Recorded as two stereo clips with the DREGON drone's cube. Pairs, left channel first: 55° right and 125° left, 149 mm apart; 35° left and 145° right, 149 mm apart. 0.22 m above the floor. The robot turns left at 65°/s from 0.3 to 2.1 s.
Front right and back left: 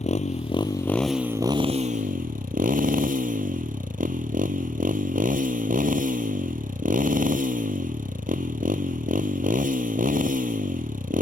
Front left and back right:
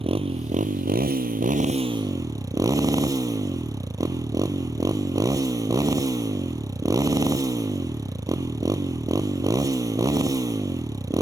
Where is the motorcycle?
95° right; by 11.2 s 150° left.